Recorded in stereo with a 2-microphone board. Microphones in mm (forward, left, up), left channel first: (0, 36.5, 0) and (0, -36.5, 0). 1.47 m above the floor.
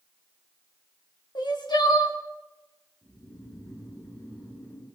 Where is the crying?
80° left, 1.5 m.